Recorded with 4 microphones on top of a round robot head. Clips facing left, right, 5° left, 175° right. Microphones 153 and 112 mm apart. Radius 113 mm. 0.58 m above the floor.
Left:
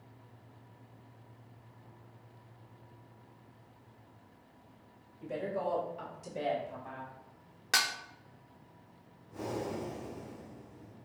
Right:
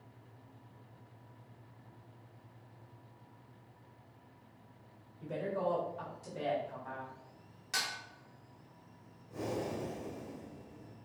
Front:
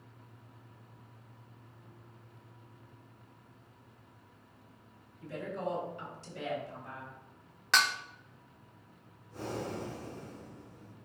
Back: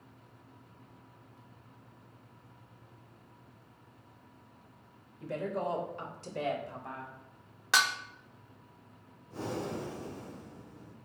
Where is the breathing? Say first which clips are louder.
Even, back 2 dB; 140° right, 2.5 m.